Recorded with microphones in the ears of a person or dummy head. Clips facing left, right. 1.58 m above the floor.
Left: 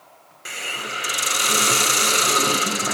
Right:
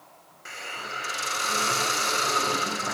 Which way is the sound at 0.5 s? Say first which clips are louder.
Left 6 dB; 50° left (ahead or behind).